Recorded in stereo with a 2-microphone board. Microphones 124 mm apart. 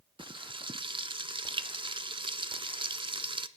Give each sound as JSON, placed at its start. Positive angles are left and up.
{"t": 0.2, "sound": "frying", "side_deg": -45, "distance_m": 0.5}